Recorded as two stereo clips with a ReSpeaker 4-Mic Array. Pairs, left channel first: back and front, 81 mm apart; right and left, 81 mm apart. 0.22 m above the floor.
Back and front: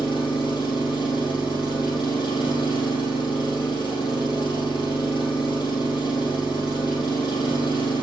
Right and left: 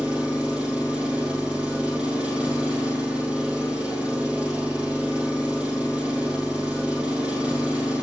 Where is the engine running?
165° left, 3.5 m.